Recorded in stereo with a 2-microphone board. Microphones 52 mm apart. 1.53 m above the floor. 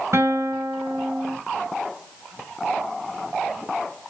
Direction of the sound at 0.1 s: 65° right (ahead or behind).